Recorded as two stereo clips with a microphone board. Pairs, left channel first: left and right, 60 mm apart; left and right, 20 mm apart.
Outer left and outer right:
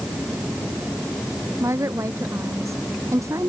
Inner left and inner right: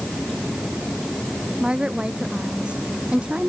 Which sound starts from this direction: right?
A woman speaking, at 1.6 s.